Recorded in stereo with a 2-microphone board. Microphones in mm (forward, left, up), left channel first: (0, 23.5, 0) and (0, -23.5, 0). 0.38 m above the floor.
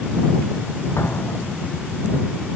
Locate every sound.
1.0 s an explosion: 65° left (ahead or behind)